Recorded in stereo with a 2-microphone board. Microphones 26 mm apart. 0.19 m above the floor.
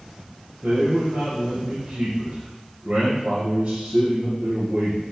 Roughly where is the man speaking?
Right.